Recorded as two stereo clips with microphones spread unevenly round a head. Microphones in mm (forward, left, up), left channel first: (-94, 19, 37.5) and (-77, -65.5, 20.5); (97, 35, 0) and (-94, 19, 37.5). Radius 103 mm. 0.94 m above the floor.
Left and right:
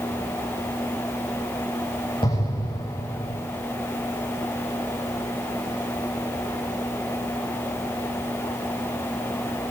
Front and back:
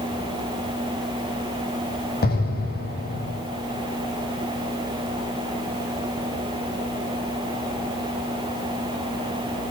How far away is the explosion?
About 7.5 m.